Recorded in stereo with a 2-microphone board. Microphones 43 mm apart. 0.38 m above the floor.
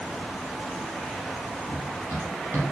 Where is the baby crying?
No baby crying in this recording.